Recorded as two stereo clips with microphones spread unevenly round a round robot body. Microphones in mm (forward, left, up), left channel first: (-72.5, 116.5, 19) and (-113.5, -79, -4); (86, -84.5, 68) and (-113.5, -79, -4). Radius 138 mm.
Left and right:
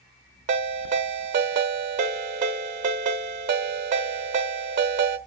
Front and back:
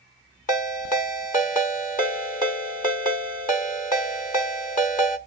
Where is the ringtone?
60° right, 1.0 m.